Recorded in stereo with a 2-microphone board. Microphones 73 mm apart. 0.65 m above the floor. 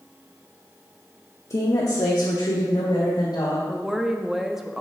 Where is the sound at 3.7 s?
5° right (ahead or behind), 0.6 m.